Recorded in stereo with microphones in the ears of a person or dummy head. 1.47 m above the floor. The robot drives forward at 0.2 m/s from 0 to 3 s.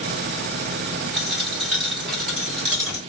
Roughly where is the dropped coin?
Centre.